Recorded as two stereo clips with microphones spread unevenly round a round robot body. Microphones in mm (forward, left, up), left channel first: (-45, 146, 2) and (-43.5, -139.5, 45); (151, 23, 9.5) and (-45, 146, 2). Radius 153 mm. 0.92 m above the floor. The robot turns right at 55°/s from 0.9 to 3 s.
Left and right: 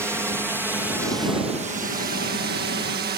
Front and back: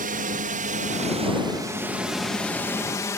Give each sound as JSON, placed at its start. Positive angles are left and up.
{"t": 0.0, "sound": "a drone", "azimuth_deg": -175}